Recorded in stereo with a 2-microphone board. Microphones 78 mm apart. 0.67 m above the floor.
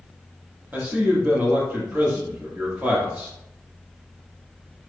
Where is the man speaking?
20° right (ahead or behind), 1.0 m.